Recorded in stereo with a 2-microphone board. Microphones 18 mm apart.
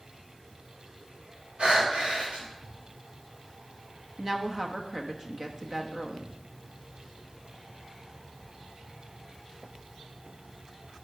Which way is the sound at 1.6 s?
75° right (ahead or behind).